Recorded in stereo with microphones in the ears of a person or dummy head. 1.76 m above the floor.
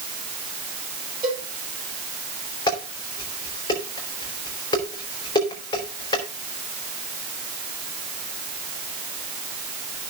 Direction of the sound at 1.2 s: 20° right (ahead or behind).